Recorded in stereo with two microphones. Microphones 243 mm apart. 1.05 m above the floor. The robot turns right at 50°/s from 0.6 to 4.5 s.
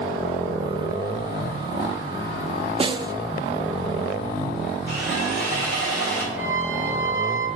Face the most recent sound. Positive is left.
turn(degrees=35)  # may be behind; listen again after turning